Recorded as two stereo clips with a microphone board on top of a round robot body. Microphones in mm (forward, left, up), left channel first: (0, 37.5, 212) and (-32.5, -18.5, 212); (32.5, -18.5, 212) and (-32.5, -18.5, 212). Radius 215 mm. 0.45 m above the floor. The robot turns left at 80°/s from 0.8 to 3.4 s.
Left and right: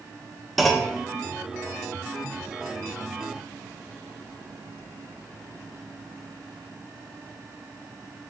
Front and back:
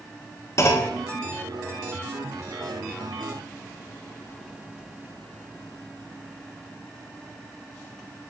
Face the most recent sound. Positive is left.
turn(degrees=120)